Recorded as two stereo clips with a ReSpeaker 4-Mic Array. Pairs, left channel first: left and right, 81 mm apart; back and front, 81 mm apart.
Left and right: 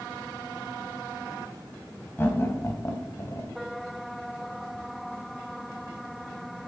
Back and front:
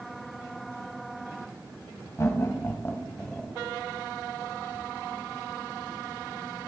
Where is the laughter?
145° left, 2 m; by 3.5 s 90° left, 1.6 m.